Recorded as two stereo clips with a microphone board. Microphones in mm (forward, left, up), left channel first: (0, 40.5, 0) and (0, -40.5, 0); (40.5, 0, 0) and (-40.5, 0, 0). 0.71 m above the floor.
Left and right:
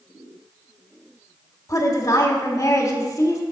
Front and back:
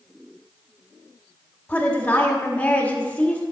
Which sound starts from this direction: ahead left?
A woman speaking, at 1.7 s.